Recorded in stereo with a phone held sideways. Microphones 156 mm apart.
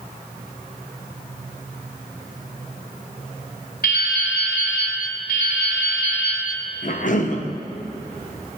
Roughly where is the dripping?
Left.